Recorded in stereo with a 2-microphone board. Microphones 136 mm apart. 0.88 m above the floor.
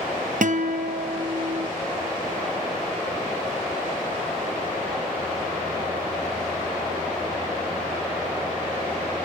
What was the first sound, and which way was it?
A guitar, 65° right (ahead or behind).